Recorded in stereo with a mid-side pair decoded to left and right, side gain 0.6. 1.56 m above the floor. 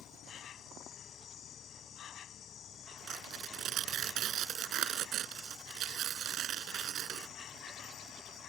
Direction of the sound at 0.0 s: 45° left.